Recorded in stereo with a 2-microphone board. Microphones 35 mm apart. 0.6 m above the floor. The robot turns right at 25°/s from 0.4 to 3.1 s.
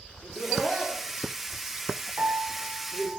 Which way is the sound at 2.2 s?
65° right (ahead or behind).